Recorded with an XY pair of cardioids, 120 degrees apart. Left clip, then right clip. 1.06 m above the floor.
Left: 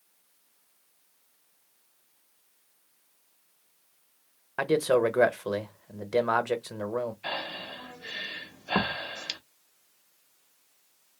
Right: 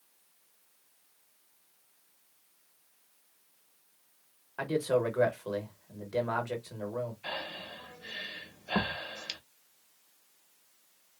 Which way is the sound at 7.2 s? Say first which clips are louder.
Left 4 dB; 30° left.